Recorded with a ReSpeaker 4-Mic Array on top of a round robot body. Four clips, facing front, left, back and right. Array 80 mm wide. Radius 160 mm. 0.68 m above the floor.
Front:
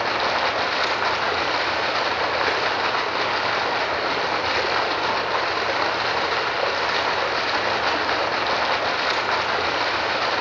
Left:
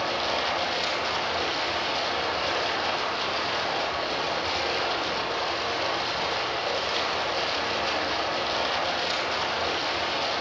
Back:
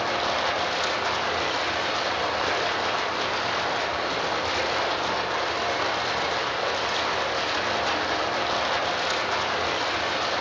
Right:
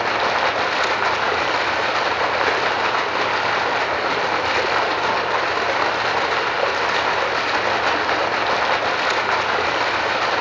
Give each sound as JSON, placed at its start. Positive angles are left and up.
{"t": 0.0, "sound": "running water", "azimuth_deg": -65, "distance_m": 2.5}